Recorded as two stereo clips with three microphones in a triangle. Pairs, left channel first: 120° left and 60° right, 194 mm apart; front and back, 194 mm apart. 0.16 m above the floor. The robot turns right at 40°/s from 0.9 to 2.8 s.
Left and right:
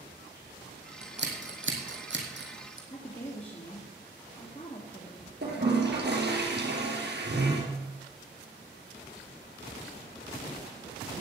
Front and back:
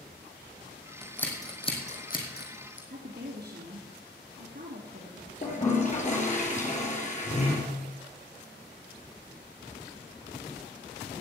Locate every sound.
1.0 s scissors: 90° right, 2.5 m; by 2.8 s 15° right, 2.5 m
2.9 s a woman speaking: 170° left, 2.5 m
5.4 s a toilet flushing: 50° right, 3.5 m